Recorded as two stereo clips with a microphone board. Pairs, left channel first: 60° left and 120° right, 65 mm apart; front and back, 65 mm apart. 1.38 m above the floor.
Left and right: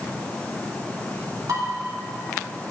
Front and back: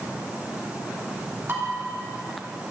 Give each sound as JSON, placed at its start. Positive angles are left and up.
{"t": 1.5, "sound": "dishes clattering", "azimuth_deg": -130, "distance_m": 3.0}